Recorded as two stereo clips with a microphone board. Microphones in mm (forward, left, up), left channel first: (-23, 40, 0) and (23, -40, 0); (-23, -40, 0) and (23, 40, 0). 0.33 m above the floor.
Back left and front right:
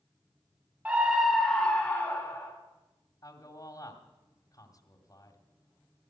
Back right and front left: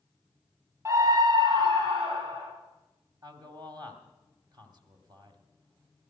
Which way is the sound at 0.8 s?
10° left.